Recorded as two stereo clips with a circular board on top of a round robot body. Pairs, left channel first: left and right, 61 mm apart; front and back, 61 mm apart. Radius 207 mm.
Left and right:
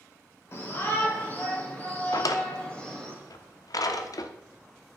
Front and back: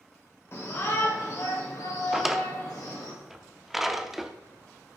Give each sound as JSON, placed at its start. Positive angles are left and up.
{"t": 0.5, "sound": "a shout", "azimuth_deg": 45, "distance_m": 2.5}
{"t": 2.1, "sound": "a drawer", "azimuth_deg": 95, "distance_m": 0.9}